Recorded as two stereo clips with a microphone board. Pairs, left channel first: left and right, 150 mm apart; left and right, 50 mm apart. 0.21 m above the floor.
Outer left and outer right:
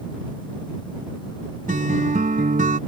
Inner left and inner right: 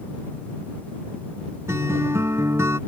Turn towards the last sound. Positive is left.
turn(degrees=-65)  # may be behind; listen again after turning